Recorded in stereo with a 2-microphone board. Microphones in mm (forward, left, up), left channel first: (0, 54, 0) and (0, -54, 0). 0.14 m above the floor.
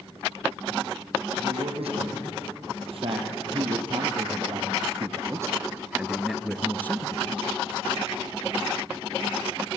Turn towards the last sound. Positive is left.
turn(degrees=35)  # may be behind; listen again after turning